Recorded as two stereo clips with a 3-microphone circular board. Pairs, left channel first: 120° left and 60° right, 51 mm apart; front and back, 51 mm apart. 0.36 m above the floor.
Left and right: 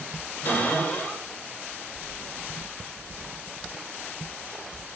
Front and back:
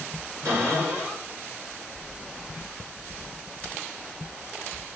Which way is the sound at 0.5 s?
155° left.